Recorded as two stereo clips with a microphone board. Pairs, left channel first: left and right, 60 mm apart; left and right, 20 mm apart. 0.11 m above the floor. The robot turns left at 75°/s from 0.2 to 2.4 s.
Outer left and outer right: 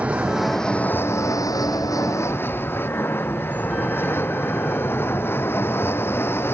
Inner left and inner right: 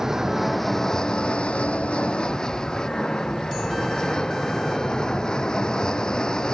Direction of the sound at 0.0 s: 25° right (ahead or behind).